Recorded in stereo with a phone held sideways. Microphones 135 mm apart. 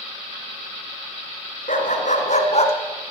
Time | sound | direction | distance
1.7 | a dog barking | 75° left (ahead or behind) | 3.5 m